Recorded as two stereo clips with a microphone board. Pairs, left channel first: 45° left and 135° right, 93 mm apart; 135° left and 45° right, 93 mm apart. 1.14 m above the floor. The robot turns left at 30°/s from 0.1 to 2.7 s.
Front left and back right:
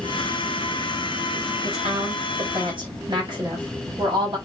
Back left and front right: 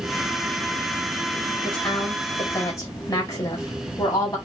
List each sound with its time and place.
1.6 s a woman speaking: 145° right, 5 m; by 4.4 s 175° right, 5 m